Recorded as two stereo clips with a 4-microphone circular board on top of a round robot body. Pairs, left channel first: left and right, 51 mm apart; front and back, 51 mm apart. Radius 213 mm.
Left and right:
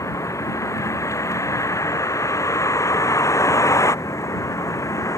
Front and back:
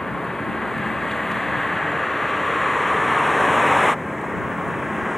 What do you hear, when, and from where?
0.0 s a vehicle: 85° left; by 5.2 s 90° left